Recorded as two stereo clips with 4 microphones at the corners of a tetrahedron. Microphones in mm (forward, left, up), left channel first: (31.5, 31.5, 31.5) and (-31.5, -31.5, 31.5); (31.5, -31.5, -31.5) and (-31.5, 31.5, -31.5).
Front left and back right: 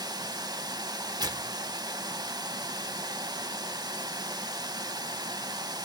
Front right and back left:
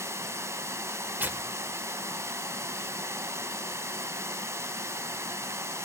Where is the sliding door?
No sliding door in this recording.